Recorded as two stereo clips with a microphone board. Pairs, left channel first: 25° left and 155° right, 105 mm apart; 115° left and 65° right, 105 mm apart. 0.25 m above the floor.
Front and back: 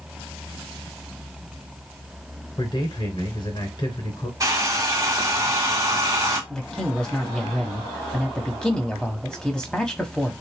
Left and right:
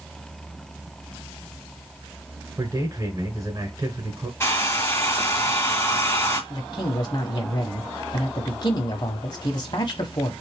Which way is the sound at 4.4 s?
165° left.